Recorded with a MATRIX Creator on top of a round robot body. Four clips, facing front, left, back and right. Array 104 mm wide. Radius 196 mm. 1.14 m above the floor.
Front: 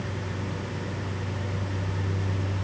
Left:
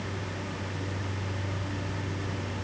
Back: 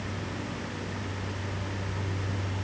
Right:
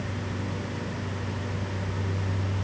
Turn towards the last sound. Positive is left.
No sound to turn to.